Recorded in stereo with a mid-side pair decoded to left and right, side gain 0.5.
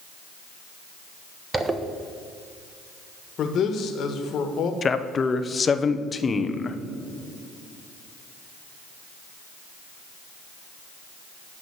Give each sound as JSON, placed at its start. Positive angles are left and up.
{"t": 1.5, "sound": "a zipper", "azimuth_deg": -20, "distance_m": 1.1}
{"t": 3.4, "sound": "a man speaking", "azimuth_deg": 55, "distance_m": 1.6}
{"t": 4.8, "sound": "a man speaking", "azimuth_deg": 35, "distance_m": 0.9}